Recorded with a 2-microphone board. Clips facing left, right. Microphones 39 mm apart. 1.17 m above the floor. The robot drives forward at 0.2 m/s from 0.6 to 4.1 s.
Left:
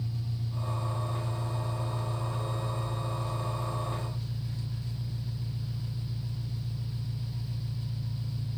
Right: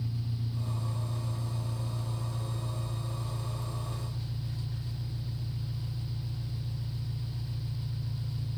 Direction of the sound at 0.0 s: 10° right (ahead or behind).